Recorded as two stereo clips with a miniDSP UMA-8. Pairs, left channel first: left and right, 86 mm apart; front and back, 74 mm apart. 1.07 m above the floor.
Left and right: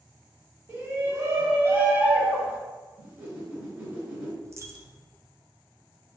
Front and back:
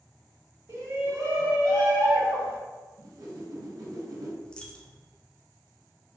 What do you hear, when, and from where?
0.7 s a shout: 140° right, 1.9 m; by 2.6 s 160° right, 1.0 m
3.0 s a whoosh: 150° right, 1.9 m
4.4 s a dropped coin: 70° right, 0.5 m